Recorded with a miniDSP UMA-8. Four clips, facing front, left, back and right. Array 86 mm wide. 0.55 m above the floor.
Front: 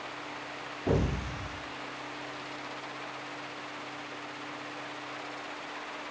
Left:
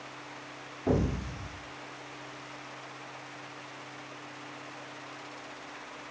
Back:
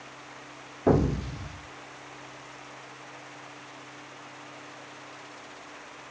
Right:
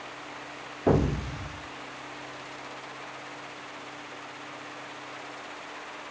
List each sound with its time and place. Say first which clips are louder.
0.9 s an explosion: right 5 dB, back 6 dB; 140° right, 1.3 m